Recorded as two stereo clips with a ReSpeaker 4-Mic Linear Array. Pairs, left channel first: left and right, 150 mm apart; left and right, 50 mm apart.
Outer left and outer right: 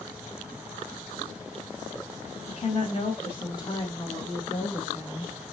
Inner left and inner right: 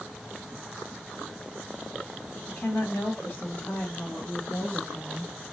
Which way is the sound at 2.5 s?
45° left (ahead or behind).